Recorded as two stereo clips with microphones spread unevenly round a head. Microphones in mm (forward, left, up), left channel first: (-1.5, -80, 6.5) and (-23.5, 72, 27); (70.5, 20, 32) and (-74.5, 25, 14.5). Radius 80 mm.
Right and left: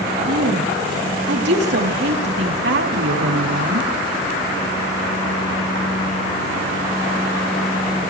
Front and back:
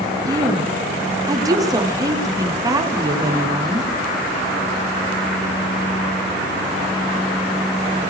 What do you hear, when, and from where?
0.3 s a woman speaking: 110° left, 4 m